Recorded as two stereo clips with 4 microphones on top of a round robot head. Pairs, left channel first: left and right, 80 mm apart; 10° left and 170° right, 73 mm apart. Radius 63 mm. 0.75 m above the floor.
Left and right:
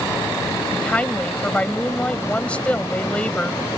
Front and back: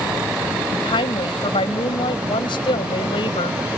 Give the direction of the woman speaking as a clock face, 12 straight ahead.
12 o'clock.